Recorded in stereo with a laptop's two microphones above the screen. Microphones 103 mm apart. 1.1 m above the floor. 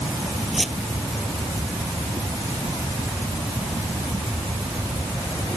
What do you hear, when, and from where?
0.5 s a squeak: centre (ahead or behind)